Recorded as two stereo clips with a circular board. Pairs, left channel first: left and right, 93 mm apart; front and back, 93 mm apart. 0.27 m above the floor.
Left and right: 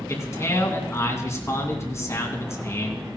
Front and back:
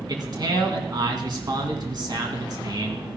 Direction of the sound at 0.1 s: 145° left.